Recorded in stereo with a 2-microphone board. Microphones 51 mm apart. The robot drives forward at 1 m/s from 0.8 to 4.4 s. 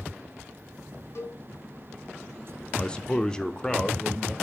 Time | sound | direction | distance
1.1 | a cowbell | 65° left (ahead or behind) | 2.5 m
2.7 | a man speaking | 20° left (ahead or behind) | 0.7 m